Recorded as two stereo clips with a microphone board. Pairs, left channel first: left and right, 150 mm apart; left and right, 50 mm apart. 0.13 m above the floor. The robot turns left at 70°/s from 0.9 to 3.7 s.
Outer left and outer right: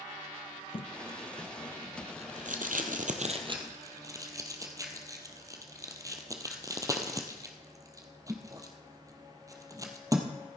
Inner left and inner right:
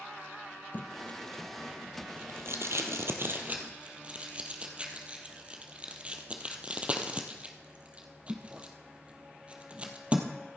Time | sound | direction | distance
0.7 | tape being pulled | 40° left (ahead or behind) | 1.7 m